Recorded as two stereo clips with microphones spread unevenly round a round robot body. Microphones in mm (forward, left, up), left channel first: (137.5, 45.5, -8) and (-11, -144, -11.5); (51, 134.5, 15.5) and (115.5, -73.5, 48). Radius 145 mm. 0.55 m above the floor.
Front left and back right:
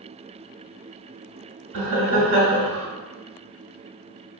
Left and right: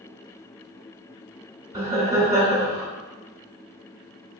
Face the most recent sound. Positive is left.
turn(degrees=-155)